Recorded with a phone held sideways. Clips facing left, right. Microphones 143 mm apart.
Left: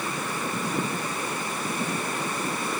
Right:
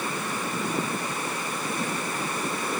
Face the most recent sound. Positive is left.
No sound to turn to.